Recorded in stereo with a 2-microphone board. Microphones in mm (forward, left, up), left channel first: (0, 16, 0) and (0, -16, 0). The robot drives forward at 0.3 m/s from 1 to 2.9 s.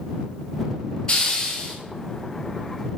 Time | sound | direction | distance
1.1 | a hiss | 25° left (ahead or behind) | 1.9 m